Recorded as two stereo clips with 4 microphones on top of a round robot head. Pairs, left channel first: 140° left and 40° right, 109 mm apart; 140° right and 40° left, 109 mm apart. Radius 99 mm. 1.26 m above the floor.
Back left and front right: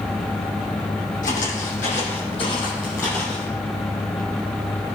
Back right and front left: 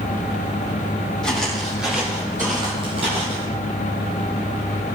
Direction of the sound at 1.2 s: 135° left.